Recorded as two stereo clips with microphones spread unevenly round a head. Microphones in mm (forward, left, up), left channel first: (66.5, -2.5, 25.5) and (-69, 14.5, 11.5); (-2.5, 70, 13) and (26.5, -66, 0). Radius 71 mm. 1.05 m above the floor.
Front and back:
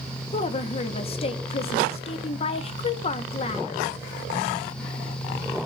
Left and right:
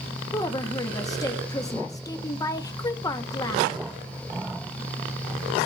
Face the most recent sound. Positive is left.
turn(degrees=35)